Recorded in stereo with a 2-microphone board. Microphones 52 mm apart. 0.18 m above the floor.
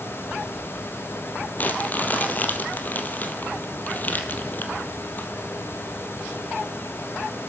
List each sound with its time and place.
1.6 s crumpling: 35° left (ahead or behind), 1.6 m